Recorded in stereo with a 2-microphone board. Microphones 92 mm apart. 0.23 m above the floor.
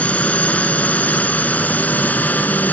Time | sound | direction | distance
0.0 | a drone | 15° left (ahead or behind) | ?